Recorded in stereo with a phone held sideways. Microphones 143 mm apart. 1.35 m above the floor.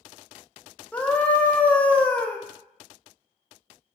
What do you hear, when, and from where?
0.9 s a scream: 10° left (ahead or behind), 0.5 m